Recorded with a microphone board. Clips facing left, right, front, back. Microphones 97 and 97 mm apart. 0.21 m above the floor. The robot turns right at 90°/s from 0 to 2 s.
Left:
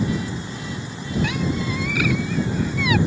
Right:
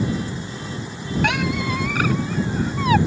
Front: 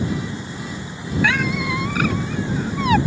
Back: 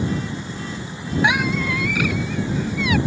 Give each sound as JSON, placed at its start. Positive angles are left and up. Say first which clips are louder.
{"t": 1.2, "sound": "a squeak", "louder": "right 4 dB, back 1 dB", "azimuth_deg": -110}